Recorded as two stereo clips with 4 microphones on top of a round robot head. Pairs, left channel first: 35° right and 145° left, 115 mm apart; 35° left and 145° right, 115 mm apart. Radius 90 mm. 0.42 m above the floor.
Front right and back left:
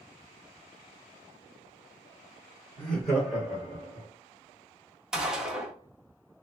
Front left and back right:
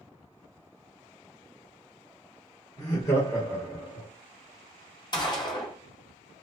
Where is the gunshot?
65° left, 0.8 m.